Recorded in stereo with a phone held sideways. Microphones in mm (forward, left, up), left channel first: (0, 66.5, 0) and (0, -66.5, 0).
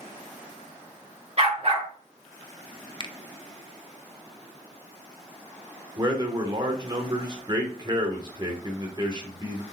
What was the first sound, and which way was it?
A dog barking, 50° right (ahead or behind).